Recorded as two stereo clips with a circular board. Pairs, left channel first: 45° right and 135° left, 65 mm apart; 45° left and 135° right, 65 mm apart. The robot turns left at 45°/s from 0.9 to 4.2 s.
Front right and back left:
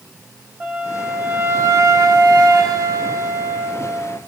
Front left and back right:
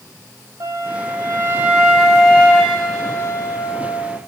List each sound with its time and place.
0.6 s a flute: 175° right, 4.5 m; by 4.2 s 40° left, 4.5 m